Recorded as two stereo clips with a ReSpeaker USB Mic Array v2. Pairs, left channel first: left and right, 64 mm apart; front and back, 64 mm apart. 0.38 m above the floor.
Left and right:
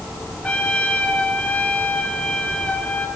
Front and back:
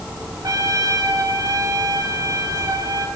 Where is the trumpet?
160° left, 5 m.